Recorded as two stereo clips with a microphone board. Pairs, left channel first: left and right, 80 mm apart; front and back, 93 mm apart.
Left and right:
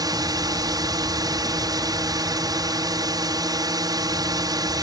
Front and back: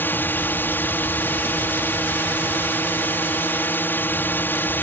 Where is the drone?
65° right.